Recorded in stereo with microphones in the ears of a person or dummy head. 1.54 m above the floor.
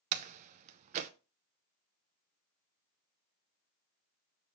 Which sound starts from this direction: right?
A door slam, at 0.1 s.